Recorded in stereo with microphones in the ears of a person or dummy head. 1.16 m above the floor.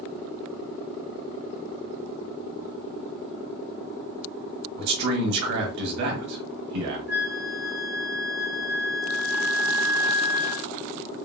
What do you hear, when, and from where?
4.8 s a man speaking: 65° right (ahead or behind), 1.4 m
7.1 s a flute: 45° right (ahead or behind), 1.0 m